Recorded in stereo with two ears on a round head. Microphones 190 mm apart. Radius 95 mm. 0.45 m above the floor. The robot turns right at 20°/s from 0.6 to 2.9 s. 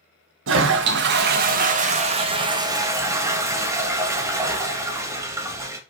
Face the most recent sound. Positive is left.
turn(degrees=-15)